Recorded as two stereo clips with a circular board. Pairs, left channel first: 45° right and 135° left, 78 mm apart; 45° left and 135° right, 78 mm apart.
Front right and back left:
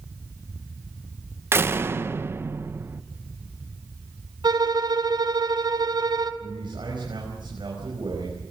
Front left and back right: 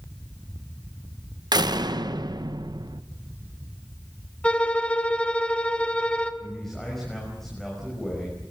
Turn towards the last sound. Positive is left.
turn(degrees=130)